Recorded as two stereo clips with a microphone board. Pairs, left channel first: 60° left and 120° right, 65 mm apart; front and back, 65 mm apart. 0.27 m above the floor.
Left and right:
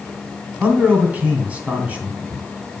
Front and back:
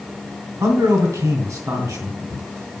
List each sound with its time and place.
0.6 s a man speaking: 175° left, 2.5 m